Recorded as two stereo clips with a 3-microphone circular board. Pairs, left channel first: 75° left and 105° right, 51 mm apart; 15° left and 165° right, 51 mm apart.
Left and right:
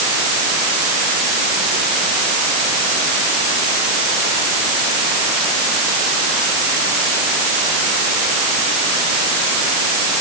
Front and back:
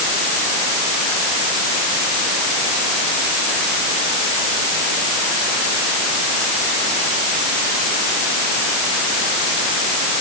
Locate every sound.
Only background noise.